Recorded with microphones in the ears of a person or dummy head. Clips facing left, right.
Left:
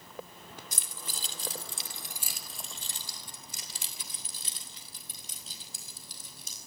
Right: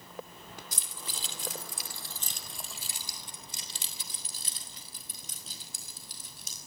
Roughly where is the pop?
I don't hear a pop.